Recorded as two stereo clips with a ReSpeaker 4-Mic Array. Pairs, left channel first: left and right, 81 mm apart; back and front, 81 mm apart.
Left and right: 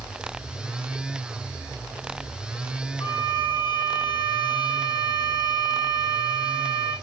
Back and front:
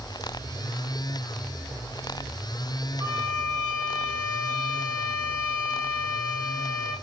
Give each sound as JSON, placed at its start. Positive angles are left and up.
{"t": 3.0, "sound": "a violin", "azimuth_deg": 60, "distance_m": 6.5}